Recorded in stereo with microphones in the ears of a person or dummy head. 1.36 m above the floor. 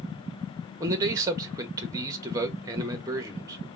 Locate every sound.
0.8 s a man speaking: 20° right (ahead or behind), 1.1 m